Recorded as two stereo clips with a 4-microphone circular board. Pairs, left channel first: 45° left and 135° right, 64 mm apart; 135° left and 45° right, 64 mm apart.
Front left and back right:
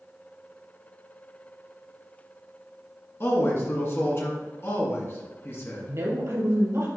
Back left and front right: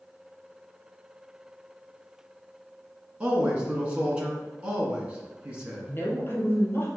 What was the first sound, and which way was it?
A man speaking, 20° left.